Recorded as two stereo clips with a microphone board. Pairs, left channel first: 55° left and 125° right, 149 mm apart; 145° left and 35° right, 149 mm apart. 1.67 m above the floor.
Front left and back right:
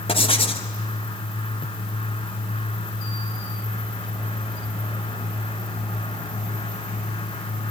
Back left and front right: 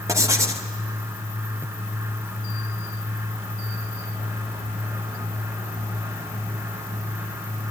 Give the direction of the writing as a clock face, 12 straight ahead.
11 o'clock.